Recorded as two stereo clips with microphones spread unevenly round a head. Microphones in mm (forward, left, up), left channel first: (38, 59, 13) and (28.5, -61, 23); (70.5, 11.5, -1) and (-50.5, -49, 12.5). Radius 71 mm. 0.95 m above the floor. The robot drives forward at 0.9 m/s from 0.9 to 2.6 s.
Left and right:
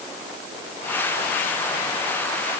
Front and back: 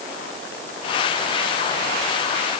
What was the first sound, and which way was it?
Only background noise.